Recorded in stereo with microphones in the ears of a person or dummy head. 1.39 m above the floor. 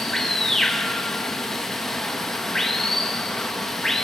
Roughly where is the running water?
Centre.